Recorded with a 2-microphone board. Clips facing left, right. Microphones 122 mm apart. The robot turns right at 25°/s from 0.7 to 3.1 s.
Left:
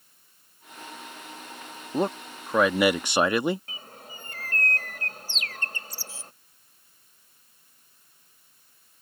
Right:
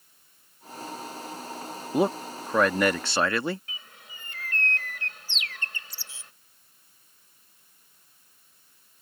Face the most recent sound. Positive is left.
turn(degrees=45)  # may be behind; listen again after turning